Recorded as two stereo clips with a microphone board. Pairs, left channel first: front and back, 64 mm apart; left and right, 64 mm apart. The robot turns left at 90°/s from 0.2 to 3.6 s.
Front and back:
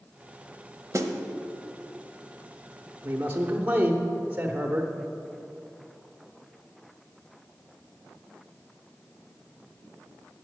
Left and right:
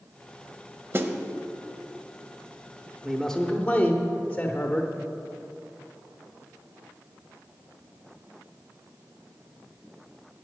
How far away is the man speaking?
About 0.8 m.